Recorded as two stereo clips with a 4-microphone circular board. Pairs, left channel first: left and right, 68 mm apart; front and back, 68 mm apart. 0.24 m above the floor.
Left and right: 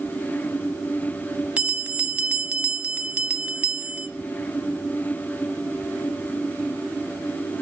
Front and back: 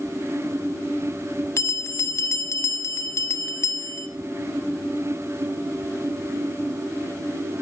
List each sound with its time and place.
1.6 s a bell: 25° right, 0.8 m